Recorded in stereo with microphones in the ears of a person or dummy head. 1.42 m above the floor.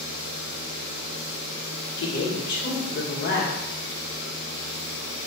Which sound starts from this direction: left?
A woman speaking, at 2.0 s.